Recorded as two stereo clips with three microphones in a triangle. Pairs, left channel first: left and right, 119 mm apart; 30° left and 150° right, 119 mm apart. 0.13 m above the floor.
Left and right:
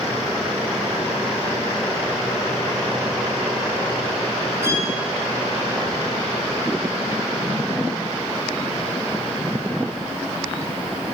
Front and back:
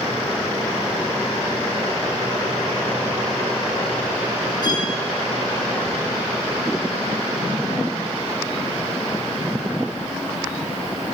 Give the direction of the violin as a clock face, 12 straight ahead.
1 o'clock.